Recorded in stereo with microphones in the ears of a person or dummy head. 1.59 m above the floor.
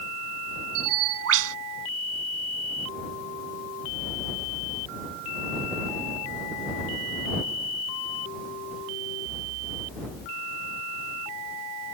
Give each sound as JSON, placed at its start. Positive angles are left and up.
{"t": 0.8, "sound": "a bird", "side_deg": -80}